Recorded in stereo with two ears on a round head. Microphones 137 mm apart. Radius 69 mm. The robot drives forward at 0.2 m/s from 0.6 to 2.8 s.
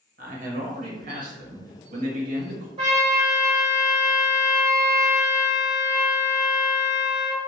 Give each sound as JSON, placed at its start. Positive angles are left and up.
{"t": 0.2, "sound": "a man speaking", "side_deg": -55, "distance_m": 0.8}
{"t": 2.8, "sound": "a trumpet", "side_deg": -30, "distance_m": 1.4}